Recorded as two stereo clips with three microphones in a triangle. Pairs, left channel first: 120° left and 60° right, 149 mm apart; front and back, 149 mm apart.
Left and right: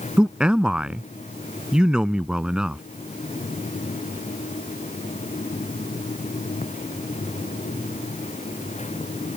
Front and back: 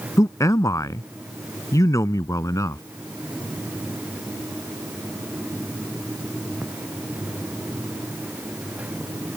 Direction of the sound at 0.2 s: 15° left.